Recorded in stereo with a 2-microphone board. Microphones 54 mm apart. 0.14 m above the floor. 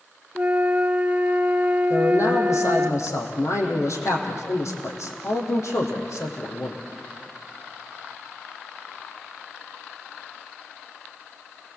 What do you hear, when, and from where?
0.3 s a flute: 30° right (ahead or behind), 1.0 m
1.9 s a man speaking: 70° left (ahead or behind), 5 m